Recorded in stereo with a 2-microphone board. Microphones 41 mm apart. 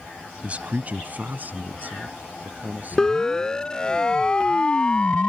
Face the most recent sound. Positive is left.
turn(degrees=30)  # may be behind; listen again after turning